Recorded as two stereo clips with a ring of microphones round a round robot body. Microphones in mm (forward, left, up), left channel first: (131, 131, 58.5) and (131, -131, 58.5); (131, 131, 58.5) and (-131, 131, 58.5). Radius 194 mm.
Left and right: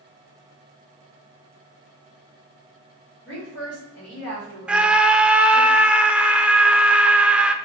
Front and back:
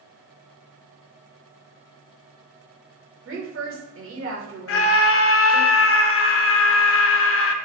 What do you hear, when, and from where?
3.2 s a woman speaking: 150° left, 1.6 m
4.7 s a scream: 5° right, 0.6 m